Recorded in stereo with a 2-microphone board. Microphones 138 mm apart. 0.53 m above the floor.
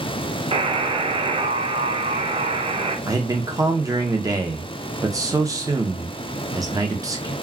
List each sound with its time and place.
0.5 s a buzzer: 40° right (ahead or behind), 0.6 m
3.1 s a man speaking: 25° right (ahead or behind), 0.7 m